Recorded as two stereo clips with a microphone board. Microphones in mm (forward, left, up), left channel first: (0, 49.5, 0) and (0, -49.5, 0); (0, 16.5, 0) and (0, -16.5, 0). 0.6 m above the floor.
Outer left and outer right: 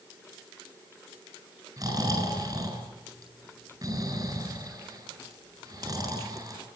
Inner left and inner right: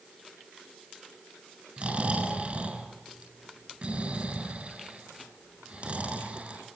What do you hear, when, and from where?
1.8 s snoring: 40° right (ahead or behind), 9 m